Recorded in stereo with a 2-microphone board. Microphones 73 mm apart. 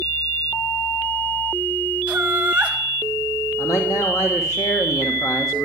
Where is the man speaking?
60° left (ahead or behind), 1.7 m.